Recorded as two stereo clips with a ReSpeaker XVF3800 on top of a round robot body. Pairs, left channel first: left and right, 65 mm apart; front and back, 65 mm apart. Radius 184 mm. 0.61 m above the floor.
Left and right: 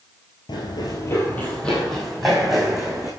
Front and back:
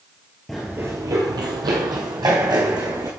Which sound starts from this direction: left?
Running footsteps, at 0.5 s.